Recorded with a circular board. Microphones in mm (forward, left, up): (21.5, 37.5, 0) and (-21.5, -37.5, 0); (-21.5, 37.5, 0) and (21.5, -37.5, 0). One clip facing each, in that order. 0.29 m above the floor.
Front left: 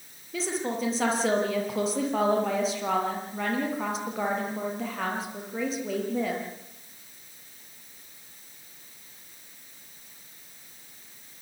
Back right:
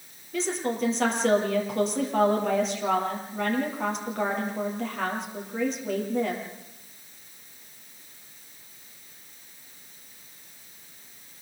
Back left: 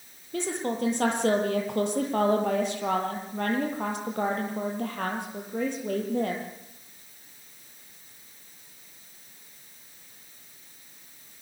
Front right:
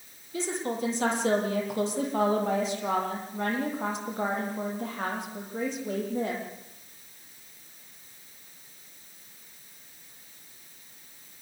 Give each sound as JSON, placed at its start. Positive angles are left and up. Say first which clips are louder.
{"t": 0.3, "sound": "a woman speaking", "louder": "back right 2 dB, back left 2 dB", "azimuth_deg": 150, "distance_m": 9.5}